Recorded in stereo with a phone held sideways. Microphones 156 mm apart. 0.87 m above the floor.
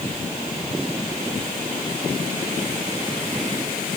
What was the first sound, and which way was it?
Only background noise.